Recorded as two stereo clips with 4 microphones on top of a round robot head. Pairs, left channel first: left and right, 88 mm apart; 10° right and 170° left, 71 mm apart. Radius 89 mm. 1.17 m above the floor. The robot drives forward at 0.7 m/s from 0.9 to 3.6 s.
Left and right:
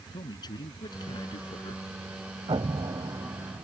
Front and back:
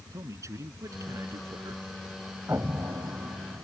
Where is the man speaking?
125° left; by 1.9 s 130° left.